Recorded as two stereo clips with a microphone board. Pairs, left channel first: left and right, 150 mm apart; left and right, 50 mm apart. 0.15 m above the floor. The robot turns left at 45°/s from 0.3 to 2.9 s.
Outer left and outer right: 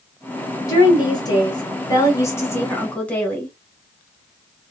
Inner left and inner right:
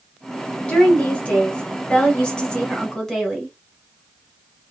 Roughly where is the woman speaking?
Left.